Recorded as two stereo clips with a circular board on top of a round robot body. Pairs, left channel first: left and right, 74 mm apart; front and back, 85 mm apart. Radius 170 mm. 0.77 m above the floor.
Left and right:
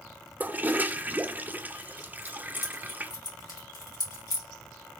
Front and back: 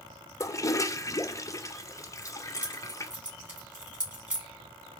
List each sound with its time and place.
0.4 s a toilet flushing: 30° right, 0.5 m
2.2 s keys jangling: 105° left, 2.5 m